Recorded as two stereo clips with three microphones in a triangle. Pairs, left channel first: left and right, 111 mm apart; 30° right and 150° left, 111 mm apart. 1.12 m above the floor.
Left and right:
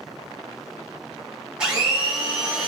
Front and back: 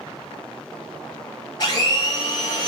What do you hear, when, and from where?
1.6 s a blender: 15° right, 1.1 m